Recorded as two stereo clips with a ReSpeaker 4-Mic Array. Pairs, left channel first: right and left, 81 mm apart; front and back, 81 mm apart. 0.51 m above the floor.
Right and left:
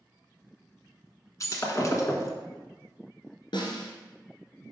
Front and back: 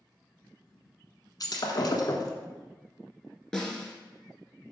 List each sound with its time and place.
1.4 s breaking glass: 40° right, 1.3 m
3.5 s a snare drum: 85° right, 1.3 m